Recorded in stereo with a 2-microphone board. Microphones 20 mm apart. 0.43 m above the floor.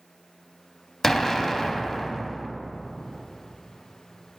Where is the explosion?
20° left (ahead or behind), 0.5 m.